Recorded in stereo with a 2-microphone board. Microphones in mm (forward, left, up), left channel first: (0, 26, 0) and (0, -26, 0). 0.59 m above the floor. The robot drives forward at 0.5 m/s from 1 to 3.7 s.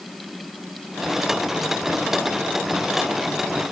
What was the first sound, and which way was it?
Only background noise.